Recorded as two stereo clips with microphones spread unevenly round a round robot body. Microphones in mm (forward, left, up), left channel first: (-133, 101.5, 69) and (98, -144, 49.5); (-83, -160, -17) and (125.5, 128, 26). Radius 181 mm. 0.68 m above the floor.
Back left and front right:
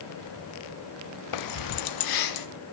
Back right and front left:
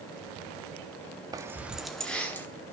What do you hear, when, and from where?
1.3 s keys jangling: 140° left, 0.6 m; by 2.5 s 150° left, 1.2 m